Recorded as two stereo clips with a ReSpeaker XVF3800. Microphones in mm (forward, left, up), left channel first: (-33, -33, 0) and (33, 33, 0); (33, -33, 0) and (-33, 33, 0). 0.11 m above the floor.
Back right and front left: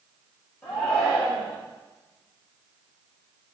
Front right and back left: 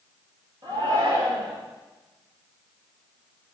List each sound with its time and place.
0.6 s a shout: 150° left, 2.5 m